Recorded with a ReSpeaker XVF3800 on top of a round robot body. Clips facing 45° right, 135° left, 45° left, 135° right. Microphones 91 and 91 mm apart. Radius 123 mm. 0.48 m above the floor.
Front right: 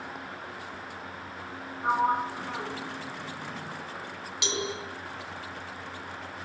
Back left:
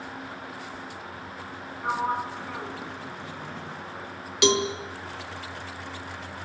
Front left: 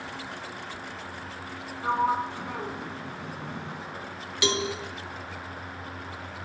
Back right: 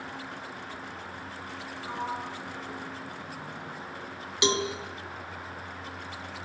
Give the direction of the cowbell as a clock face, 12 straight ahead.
7 o'clock.